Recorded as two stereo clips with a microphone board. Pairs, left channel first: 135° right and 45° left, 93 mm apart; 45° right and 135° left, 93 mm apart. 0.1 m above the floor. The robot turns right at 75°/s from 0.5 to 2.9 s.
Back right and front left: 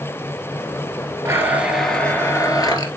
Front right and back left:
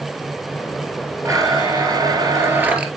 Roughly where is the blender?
Left.